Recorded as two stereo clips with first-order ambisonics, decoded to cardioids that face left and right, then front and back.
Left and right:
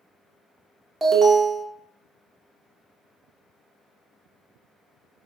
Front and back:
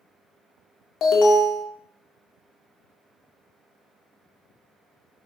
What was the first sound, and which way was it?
An alarm, 15° right.